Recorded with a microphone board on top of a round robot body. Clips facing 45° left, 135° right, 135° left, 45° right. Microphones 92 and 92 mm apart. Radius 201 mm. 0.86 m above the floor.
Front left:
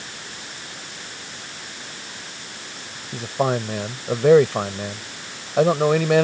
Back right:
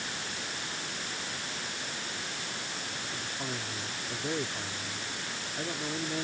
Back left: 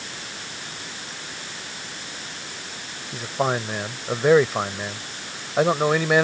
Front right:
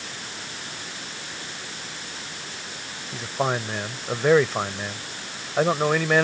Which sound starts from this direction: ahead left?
A man speaking, at 3.1 s.